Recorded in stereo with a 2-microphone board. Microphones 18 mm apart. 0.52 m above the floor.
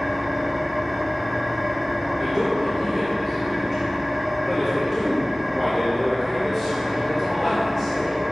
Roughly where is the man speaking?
Centre.